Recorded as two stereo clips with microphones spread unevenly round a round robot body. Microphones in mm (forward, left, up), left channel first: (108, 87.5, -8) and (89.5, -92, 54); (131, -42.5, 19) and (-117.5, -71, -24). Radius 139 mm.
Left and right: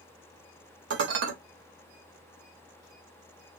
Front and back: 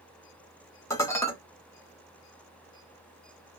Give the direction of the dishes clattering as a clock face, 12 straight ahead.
3 o'clock.